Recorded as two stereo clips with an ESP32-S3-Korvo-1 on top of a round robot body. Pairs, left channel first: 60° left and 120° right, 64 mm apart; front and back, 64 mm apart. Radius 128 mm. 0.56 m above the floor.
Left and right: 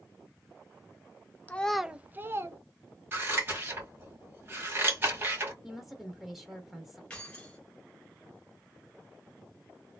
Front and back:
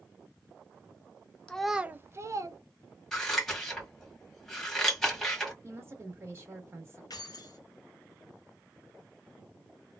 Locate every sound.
1.5 s a child speaking: 50° left, 0.6 m; by 2.6 s 160° right, 1.0 m
3.1 s scissors: 80° right, 1.7 m
5.6 s a woman speaking: 155° left, 1.1 m
7.1 s keys jangling: 15° right, 1.3 m